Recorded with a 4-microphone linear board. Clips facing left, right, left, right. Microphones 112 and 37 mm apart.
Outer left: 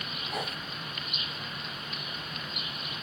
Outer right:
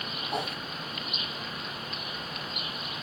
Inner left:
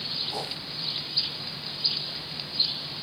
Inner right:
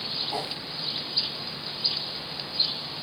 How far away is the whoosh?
About 2.5 m.